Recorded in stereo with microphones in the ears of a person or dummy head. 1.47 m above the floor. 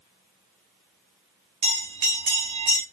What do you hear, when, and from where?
1.6 s a bell: 30° right (ahead or behind), 1.8 m